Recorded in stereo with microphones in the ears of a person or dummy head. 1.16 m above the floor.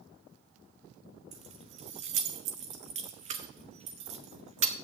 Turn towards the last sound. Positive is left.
turn(degrees=-40)  # may be behind; listen again after turning